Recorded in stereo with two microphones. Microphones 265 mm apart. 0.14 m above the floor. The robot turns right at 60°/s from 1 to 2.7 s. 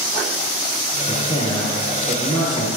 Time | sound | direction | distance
1.1 | a man speaking | 145° left | 3.5 m